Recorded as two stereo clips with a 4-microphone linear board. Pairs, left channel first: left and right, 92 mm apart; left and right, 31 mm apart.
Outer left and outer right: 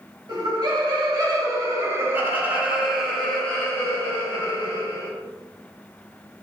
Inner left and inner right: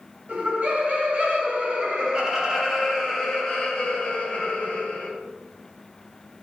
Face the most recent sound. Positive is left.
turn(degrees=40)  # may be behind; listen again after turning